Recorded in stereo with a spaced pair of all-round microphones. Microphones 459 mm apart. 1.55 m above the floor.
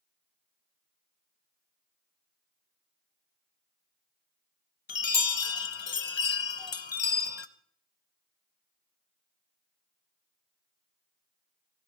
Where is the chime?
70° left (ahead or behind), 0.7 m.